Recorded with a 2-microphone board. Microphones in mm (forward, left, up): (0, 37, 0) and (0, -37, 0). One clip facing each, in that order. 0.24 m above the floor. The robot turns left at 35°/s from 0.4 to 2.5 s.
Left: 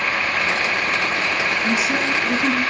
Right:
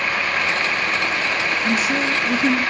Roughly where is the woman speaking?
Centre.